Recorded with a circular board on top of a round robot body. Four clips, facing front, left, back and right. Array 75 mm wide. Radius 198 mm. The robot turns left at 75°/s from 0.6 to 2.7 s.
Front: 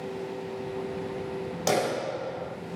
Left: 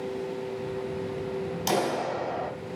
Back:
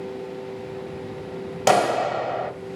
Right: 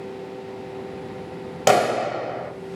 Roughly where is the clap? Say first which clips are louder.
Right 9 dB, back 8 dB; behind right.